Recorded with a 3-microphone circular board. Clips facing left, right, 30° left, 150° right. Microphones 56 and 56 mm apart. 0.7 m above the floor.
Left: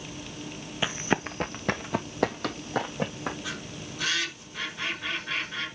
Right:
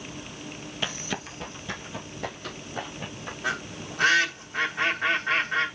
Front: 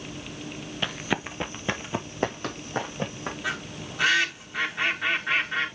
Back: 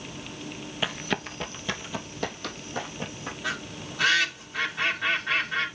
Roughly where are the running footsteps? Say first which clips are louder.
Left 6 dB, front 1 dB; behind left.